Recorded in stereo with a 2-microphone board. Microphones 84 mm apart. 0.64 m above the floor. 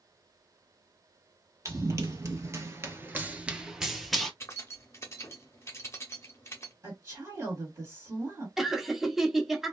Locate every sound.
1.6 s running footsteps: 40° right (ahead or behind), 1.1 m; by 4.3 s 5° left (ahead or behind), 0.9 m
4.4 s keys jangling: 35° left (ahead or behind), 0.7 m
6.8 s a woman speaking: 35° right (ahead or behind), 1.8 m
8.6 s laughter: 5° right (ahead or behind), 0.7 m